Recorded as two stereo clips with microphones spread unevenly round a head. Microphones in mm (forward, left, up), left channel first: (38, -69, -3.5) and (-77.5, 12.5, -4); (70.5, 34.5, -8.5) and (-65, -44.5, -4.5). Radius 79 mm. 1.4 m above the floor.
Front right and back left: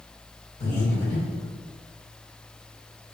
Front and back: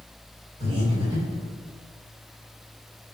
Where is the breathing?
85° right, 2.0 m.